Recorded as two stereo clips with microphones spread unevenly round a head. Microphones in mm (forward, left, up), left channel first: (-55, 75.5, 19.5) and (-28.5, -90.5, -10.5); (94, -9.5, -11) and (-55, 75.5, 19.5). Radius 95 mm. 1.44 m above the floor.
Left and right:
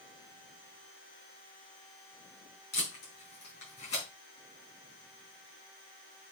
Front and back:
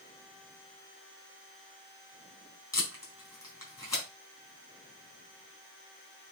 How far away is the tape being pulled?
About 5 m.